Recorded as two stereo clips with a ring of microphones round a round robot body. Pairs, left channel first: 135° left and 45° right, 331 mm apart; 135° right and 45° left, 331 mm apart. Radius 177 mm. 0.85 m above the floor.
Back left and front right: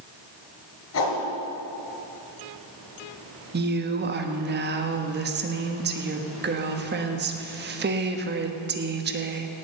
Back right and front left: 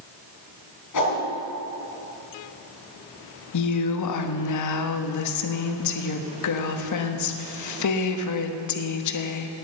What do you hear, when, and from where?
0.9 s a whoosh: 175° right, 5 m
3.5 s a woman speaking: 105° right, 1.2 m